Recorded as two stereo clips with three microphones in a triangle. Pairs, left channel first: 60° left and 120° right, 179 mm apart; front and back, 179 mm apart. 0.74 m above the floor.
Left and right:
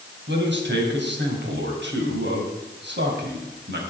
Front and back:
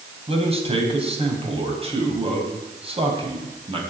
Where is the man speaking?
125° right, 4 m.